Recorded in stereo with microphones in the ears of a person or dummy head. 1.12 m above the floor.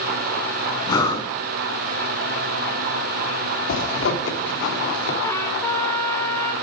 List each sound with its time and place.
0.9 s breathing: 20° left (ahead or behind), 2.5 m
3.7 s a zipper: 70° left (ahead or behind), 3.5 m
5.2 s a trumpet: 15° left (ahead or behind), 2.5 m